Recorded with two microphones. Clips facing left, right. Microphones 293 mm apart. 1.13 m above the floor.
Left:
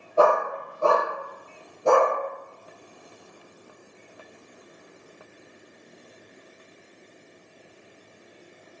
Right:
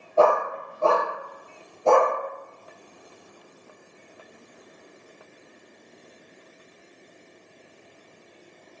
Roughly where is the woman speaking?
I don't hear a woman speaking.